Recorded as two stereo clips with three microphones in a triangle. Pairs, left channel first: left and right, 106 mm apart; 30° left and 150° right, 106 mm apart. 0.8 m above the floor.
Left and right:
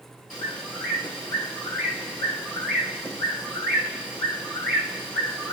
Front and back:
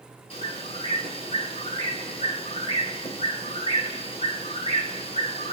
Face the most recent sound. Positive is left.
turn(degrees=5)